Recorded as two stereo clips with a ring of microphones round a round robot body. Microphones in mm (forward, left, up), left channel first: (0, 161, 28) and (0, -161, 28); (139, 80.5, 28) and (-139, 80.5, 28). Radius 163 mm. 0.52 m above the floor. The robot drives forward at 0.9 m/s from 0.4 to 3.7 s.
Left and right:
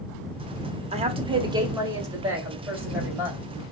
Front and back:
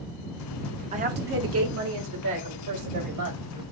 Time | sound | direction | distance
0.9 | a woman speaking | 140° right | 0.8 m